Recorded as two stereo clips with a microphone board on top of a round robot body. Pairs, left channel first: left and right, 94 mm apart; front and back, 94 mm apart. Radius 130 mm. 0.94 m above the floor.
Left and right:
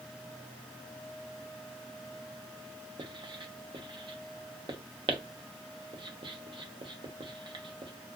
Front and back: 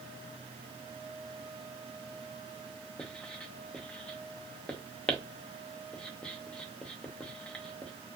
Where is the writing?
75° right, 0.8 m.